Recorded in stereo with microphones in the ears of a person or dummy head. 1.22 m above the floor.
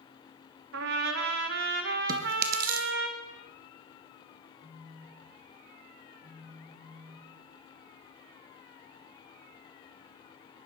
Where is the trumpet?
65° right (ahead or behind), 1.3 m.